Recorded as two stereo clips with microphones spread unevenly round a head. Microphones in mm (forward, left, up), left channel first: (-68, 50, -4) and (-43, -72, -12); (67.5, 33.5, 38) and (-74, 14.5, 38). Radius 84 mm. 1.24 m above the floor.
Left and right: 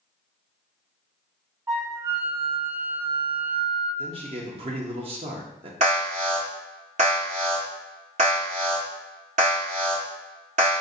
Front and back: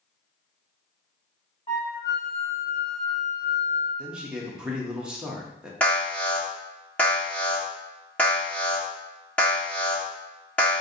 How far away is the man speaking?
About 0.7 m.